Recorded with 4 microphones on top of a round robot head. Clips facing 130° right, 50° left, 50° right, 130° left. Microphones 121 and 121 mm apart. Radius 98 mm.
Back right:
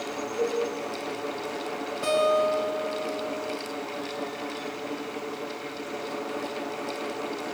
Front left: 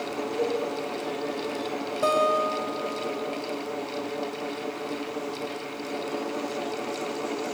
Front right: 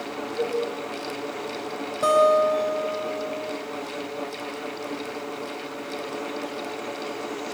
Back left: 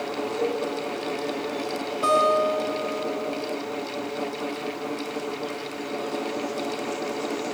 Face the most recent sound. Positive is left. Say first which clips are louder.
# back right 1 dB, front right 3 dB
turn(degrees=0)